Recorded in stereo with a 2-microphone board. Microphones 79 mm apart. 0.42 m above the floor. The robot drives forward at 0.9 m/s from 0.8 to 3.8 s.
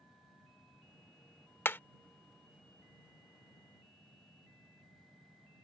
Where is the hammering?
30° left (ahead or behind); by 1.8 s 25° left (ahead or behind).